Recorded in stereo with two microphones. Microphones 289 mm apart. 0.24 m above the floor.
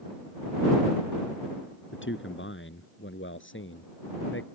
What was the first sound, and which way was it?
A man speaking, 45° left (ahead or behind).